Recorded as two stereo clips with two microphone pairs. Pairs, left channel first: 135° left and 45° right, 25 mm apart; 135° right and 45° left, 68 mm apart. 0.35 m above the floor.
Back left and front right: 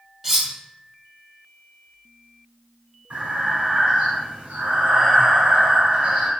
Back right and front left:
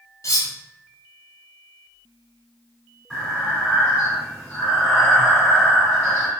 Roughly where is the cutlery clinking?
Behind right.